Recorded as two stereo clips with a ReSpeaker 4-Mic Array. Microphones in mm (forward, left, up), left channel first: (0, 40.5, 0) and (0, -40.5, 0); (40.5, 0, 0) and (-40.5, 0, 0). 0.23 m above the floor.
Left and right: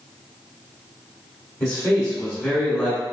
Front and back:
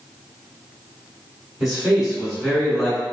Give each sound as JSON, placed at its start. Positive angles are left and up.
{"t": 1.6, "sound": "a man speaking", "azimuth_deg": 105, "distance_m": 1.3}